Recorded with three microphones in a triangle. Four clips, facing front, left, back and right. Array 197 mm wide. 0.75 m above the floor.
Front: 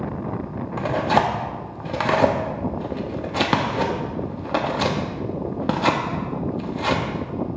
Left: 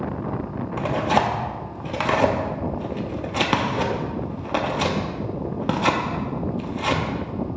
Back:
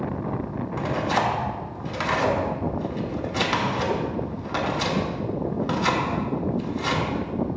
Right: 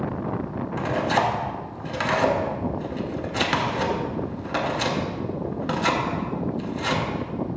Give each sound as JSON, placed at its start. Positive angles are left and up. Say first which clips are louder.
{"t": 0.8, "sound": "tearing paper", "louder": "left 2 dB, front 5 dB", "azimuth_deg": 20, "distance_m": 0.7}